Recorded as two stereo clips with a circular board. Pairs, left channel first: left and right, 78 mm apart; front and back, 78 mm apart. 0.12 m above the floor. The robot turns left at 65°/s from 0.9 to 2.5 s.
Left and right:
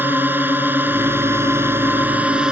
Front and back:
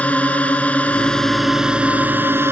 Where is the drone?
55° right; by 2.5 s 160° right.